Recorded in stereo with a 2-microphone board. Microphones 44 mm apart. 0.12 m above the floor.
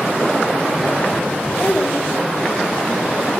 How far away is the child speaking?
About 4.5 m.